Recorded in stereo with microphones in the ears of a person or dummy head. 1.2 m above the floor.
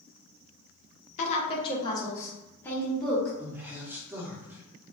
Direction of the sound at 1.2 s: 40° left (ahead or behind).